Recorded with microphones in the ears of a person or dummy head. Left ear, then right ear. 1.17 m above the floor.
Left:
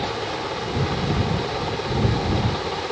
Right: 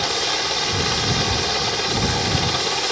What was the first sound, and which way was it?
A helicopter, 70° right (ahead or behind).